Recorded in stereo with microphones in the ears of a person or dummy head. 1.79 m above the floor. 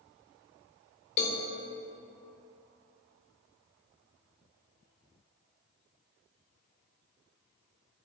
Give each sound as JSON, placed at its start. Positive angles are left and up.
{"t": 1.2, "sound": "a cowbell", "side_deg": 35, "distance_m": 0.6}